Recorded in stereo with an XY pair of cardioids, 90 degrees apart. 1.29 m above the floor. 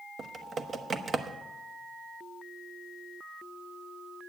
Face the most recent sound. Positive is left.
turn(degrees=-50)